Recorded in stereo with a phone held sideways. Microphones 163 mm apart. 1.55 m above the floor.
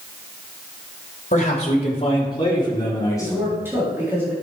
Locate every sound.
1.3 s a man speaking: 45° left (ahead or behind), 3 m; by 3.6 s 15° left (ahead or behind), 4.5 m
3.2 s a man speaking: 15° right (ahead or behind), 4 m